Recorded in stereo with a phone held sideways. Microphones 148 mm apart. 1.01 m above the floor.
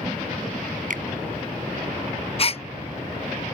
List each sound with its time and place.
0.9 s a finger snap: 65° right (ahead or behind)
2.4 s a gasp: 45° left (ahead or behind)